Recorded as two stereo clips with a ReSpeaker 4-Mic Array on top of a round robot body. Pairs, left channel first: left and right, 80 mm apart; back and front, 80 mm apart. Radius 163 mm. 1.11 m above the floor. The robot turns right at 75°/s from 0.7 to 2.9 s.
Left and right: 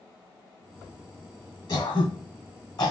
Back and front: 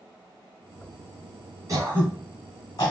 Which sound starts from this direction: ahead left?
Throat clearing, at 1.7 s.